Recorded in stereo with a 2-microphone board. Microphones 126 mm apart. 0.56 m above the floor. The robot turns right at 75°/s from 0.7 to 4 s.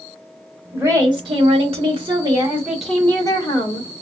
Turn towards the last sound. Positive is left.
turn(degrees=85)